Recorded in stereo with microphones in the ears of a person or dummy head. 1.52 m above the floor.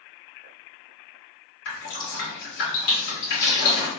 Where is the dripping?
75° left (ahead or behind), 2 m.